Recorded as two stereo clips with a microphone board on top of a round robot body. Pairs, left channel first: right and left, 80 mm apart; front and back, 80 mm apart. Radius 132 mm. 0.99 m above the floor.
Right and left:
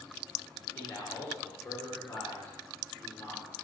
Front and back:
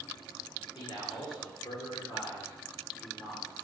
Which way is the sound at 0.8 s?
25° right.